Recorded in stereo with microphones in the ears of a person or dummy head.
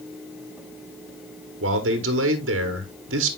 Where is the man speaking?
65° right (ahead or behind), 1.1 m.